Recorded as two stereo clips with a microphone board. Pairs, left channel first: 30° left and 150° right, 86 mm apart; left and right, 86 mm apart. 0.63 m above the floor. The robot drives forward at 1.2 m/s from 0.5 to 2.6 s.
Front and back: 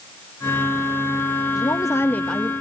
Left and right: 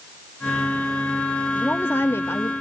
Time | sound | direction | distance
1.5 | a woman speaking | 25° left | 1.3 m